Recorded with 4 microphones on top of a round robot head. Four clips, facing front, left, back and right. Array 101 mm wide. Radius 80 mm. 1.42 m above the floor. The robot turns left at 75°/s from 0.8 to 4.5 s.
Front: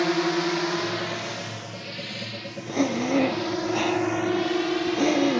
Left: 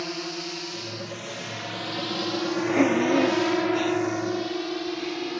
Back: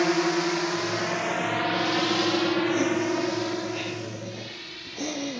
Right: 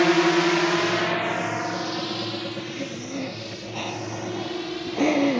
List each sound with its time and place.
0.0 s a drone: 100° right; by 5.4 s 15° left
2.7 s breathing: 75° left; by 5.4 s 65° right